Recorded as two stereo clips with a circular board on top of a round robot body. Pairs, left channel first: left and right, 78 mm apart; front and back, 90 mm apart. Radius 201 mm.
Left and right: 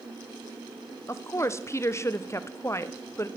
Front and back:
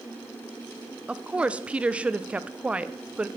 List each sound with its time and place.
1.1 s a woman speaking: 110° left, 0.7 m